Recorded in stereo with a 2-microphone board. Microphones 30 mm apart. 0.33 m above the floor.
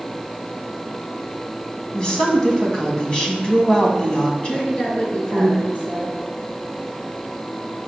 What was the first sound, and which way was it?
A woman speaking, 25° left (ahead or behind).